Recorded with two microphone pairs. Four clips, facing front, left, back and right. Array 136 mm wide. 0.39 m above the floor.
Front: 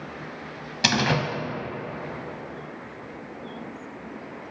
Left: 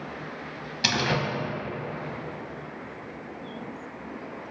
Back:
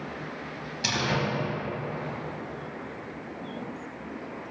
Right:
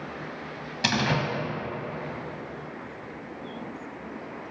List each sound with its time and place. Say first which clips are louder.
0.8 s a door slam: right 1 dB, front 5 dB; 5° right, 1.7 m